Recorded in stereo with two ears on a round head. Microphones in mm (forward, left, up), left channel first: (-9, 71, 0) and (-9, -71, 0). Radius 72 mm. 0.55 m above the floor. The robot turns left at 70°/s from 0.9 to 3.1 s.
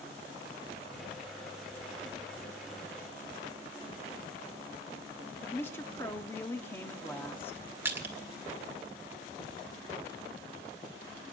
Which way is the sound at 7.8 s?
15° right (ahead or behind).